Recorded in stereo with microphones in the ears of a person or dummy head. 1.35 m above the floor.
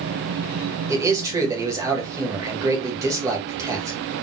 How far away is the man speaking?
About 1.5 m.